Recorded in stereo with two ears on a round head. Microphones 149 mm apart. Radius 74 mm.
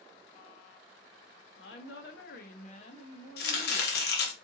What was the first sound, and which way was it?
A woman speaking, 80° left.